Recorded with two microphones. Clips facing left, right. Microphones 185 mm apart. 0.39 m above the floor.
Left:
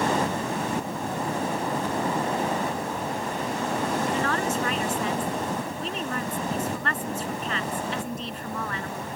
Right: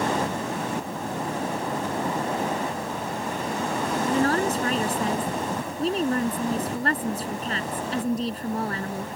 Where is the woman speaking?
40° right (ahead or behind).